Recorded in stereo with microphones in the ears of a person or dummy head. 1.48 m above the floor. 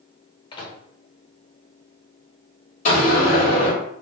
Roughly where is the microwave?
Left.